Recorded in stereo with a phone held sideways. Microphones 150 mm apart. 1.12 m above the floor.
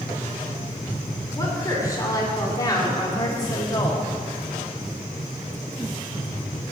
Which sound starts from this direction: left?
A woman speaking, at 1.4 s.